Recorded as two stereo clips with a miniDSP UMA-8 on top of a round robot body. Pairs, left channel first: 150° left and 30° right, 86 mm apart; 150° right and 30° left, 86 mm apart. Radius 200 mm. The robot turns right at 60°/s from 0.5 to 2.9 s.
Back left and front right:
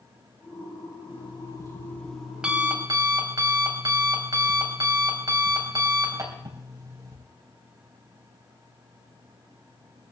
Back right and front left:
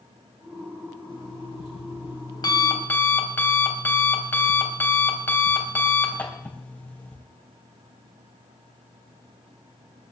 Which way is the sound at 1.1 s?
170° left.